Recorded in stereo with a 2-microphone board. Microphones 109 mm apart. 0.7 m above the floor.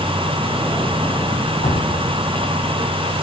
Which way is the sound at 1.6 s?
75° left (ahead or behind).